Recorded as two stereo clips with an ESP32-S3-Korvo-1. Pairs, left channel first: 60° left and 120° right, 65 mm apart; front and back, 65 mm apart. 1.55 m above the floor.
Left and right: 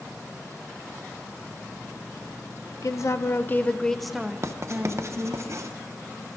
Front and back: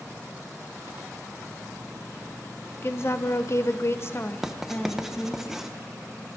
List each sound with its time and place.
2.8 s a woman speaking: 45° left, 0.8 m; by 5.4 s 75° right, 1.1 m
4.4 s writing: 95° right, 0.8 m